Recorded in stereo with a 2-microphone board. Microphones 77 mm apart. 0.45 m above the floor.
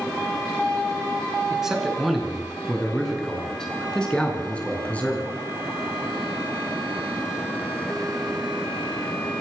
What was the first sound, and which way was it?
A man speaking, 5° right (ahead or behind).